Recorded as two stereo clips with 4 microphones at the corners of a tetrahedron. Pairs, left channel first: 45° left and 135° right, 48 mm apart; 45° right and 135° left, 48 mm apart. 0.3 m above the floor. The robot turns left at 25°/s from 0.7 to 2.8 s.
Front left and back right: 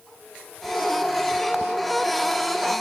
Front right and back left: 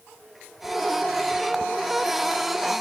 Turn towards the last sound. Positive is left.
No sound to turn to.